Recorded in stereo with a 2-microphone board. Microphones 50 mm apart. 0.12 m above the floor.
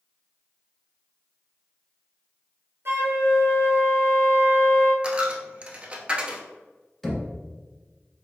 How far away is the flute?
About 0.7 m.